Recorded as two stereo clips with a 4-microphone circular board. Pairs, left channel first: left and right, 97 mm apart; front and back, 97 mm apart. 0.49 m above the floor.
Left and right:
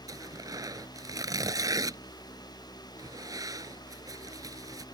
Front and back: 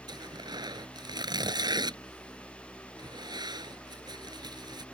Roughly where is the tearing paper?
Behind right.